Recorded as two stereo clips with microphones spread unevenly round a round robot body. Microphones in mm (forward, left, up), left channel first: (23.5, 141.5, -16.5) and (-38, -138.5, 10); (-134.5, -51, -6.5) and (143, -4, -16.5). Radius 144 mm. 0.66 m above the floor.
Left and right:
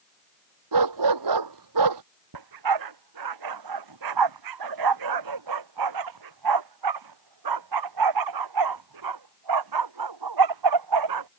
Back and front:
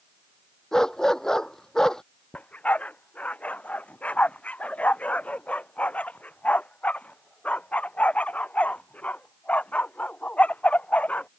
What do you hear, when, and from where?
0.7 s a dog barking: 80° right
2.3 s a dog barking: 85° right